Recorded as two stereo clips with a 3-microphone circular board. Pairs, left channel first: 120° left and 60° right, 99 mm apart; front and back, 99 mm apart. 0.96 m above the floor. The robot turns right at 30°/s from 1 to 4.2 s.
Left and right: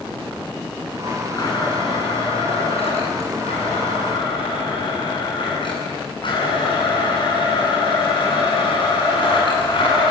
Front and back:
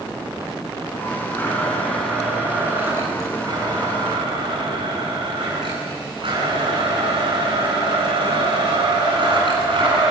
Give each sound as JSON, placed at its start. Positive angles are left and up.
{"t": 1.3, "sound": "a blender", "azimuth_deg": 65, "distance_m": 9.5}